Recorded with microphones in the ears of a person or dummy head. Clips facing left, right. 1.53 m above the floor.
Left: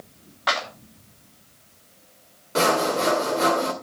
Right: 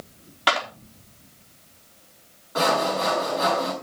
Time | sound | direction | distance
0.5 | a clap | 40° right (ahead or behind) | 4 m
2.5 | sawing | 40° left (ahead or behind) | 2 m